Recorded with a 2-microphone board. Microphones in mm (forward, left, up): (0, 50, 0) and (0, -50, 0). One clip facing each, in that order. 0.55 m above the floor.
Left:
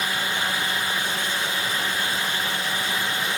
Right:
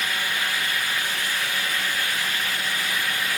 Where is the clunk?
No clunk in this recording.